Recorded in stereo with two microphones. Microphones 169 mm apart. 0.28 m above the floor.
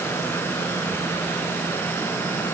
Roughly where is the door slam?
No door slam in this recording.